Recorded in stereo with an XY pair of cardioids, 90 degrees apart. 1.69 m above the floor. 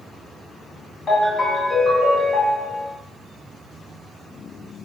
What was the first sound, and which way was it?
A ringtone, 45° left.